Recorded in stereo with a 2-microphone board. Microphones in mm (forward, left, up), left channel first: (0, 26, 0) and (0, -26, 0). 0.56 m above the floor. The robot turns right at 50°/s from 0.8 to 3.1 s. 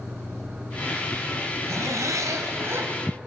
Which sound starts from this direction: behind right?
A zipper, at 1.7 s.